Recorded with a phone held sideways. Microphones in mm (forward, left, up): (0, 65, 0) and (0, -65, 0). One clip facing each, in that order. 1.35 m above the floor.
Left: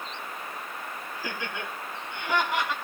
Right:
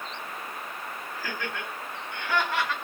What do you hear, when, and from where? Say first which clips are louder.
1.1 s laughter: even; 15° left (ahead or behind), 8.5 m